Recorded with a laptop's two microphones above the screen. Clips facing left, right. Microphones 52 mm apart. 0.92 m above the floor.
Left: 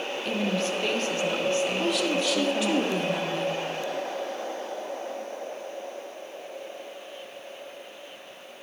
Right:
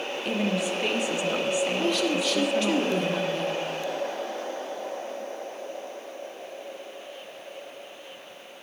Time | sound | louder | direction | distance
0.2 | a woman speaking | right 1 dB | 15° right (ahead or behind) | 1.1 m
1.8 | a woman speaking | even | 5° left (ahead or behind) | 2 m